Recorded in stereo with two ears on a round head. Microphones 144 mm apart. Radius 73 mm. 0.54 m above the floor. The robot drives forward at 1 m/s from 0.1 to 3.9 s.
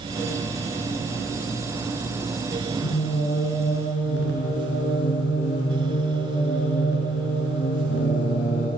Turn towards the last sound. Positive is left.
turn(degrees=80)